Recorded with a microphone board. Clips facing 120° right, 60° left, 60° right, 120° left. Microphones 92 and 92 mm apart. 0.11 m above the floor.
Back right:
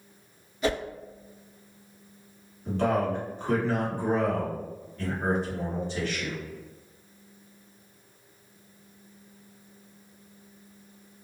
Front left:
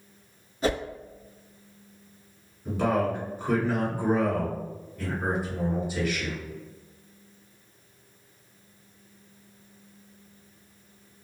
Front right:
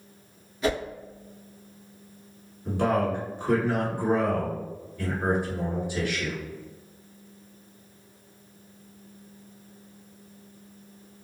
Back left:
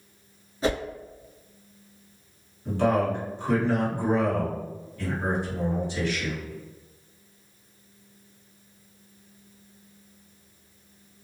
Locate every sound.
0.6 s a whoosh: 85° left, 1.1 m
2.6 s a man speaking: 5° right, 1.5 m